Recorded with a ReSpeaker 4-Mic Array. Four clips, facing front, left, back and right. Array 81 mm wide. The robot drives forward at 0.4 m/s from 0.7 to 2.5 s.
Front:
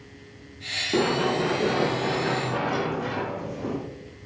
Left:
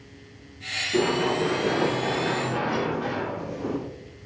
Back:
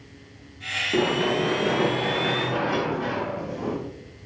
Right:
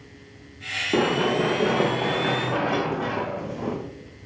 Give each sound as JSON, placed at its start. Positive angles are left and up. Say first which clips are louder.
{"t": 0.9, "sound": "running footsteps", "louder": "right 2 dB, even", "azimuth_deg": -85, "distance_m": 4.0}